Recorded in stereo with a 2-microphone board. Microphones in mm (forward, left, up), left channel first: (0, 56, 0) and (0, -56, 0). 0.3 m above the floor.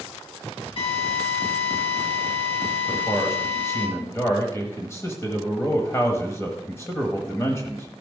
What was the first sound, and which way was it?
A drill, 50° left (ahead or behind).